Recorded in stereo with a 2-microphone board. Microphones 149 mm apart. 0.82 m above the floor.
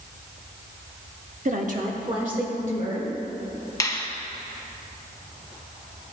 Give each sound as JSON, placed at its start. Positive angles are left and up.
{"t": 1.4, "sound": "a woman speaking", "side_deg": -55, "distance_m": 0.8}
{"t": 3.8, "sound": "a finger snap", "side_deg": 20, "distance_m": 0.7}